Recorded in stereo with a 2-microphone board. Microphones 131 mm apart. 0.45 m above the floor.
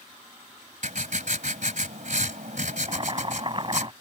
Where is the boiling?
35° right (ahead or behind).